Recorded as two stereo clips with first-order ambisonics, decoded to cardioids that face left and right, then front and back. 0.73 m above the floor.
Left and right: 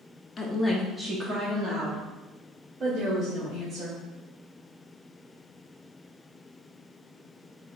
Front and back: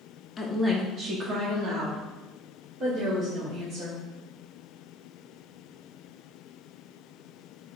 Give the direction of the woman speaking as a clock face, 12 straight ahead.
10 o'clock.